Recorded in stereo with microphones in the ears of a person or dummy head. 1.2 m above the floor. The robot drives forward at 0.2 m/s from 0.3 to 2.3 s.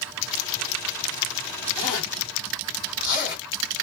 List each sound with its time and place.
1.8 s a zipper: 25° left (ahead or behind), 1.5 m